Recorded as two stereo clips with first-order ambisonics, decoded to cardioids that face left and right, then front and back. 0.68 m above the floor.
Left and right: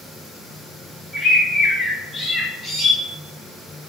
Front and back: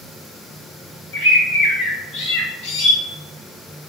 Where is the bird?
Straight ahead, 2 m.